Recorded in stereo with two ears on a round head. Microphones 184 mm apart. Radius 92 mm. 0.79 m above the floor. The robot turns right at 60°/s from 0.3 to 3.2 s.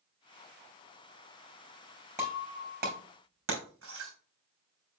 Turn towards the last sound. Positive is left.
turn(degrees=-70)  # may be behind; listen again after turning